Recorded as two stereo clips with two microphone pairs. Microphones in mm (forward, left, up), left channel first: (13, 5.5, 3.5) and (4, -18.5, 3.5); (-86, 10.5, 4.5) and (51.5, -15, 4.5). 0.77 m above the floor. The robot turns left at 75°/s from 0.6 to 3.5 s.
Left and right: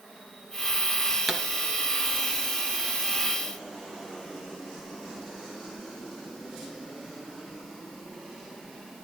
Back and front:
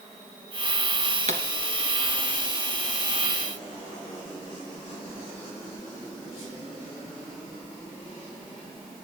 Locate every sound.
1.3 s a pop: 35° right, 1.9 m; by 1.4 s 50° right, 1.9 m